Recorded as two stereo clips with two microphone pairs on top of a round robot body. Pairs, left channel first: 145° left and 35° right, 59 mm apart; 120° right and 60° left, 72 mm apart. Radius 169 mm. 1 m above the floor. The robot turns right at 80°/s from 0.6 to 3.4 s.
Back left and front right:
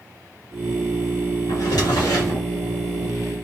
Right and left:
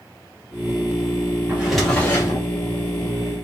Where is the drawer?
125° left, 0.5 m; by 2.5 s 155° right, 0.5 m.